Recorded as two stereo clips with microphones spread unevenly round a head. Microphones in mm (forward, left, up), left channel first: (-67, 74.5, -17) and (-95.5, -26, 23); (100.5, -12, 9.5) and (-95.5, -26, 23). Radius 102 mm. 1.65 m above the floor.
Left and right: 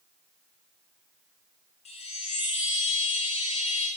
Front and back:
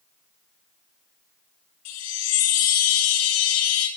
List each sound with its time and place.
1.9 s a chime: 10° left, 1.9 m